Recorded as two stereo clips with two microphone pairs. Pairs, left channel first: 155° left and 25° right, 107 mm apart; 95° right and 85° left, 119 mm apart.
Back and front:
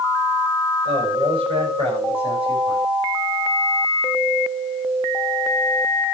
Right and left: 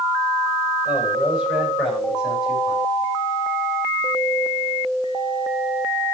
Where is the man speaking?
5° left, 8.5 m; by 2.8 s straight ahead, 7.5 m.